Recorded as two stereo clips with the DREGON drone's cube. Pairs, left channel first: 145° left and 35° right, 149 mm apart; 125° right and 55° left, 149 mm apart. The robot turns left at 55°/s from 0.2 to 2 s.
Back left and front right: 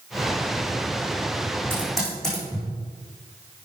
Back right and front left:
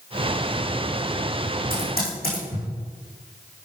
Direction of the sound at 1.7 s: 110° right.